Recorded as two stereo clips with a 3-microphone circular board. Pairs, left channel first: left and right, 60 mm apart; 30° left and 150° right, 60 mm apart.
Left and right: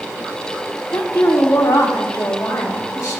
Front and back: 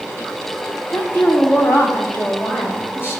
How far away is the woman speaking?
About 1.9 m.